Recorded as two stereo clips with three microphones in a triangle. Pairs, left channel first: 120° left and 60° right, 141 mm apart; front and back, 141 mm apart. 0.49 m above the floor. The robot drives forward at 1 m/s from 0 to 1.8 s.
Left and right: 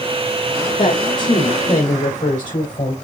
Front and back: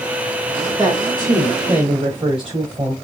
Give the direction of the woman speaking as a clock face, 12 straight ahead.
8 o'clock.